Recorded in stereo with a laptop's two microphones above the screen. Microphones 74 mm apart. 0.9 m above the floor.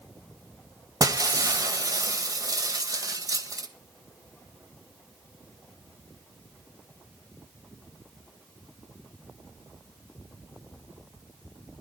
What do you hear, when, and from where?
1.0 s breaking glass: 50° right (ahead or behind), 1.4 m